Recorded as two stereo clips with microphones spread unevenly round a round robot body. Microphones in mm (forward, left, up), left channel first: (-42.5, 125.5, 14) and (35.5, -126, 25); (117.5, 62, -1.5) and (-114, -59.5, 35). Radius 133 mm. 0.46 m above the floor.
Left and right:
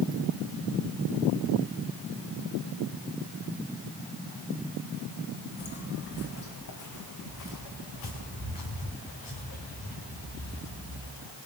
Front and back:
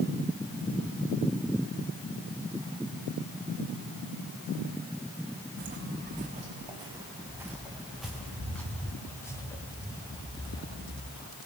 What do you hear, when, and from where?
5.6 s footsteps: 160° left, 1.9 m; by 11.3 s 100° left, 5.5 m